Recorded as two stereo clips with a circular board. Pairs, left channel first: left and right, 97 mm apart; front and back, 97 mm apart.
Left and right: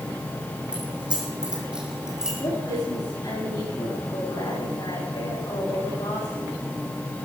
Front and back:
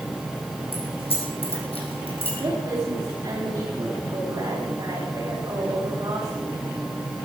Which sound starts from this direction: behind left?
A woman speaking, at 2.4 s.